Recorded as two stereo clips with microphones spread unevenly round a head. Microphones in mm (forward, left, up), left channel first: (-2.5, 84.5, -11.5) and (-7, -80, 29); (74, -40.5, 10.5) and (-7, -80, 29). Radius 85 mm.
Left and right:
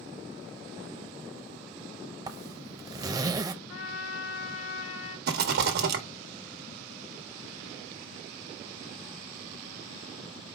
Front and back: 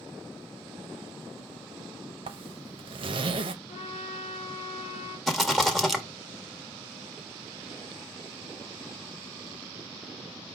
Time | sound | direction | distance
2.3 | a zipper | 165° right | 0.5 m
3.7 | a trumpet | 70° left | 1.7 m
5.3 | a rattle | 55° right | 1.0 m